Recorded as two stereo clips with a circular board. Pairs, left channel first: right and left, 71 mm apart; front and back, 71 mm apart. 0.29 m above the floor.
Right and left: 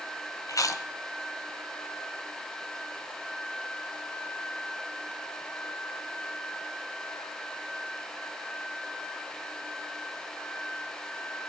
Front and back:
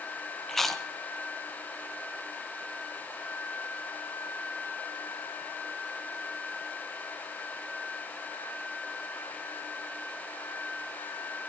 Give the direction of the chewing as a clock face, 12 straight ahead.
3 o'clock.